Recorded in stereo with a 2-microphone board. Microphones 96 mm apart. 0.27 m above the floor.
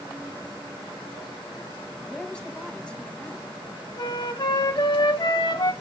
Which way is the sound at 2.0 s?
10° left (ahead or behind).